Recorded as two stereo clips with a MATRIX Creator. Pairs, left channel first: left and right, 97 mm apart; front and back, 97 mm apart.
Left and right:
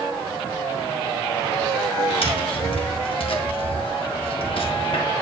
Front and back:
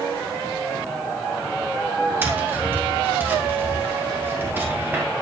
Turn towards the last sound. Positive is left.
turn(degrees=110)